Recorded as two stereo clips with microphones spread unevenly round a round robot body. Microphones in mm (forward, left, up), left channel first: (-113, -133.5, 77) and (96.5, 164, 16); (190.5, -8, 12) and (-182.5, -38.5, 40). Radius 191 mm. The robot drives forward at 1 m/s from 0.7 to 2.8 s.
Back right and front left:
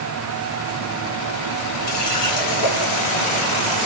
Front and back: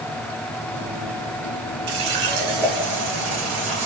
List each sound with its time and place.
1.9 s a running tap: 175° right, 1.8 m; by 3.9 s straight behind, 2.5 m